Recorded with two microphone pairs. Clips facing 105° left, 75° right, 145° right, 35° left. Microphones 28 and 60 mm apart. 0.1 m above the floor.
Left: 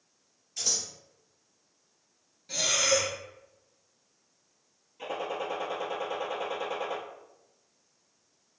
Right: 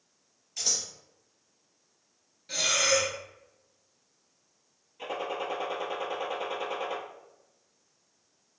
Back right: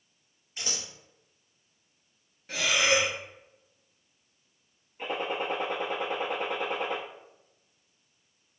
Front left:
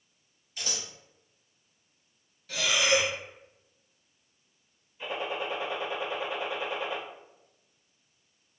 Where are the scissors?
155° right, 1.7 m.